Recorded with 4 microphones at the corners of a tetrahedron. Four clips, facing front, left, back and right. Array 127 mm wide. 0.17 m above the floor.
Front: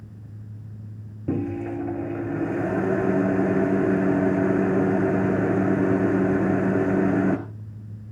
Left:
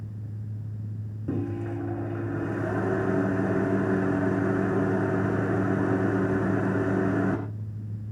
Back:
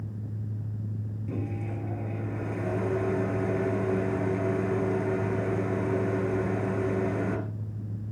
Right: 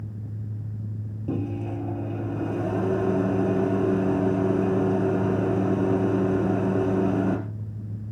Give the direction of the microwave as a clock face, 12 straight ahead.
12 o'clock.